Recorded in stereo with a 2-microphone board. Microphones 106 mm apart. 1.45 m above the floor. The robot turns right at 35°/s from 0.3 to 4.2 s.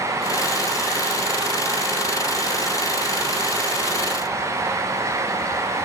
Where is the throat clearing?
I don't hear throat clearing.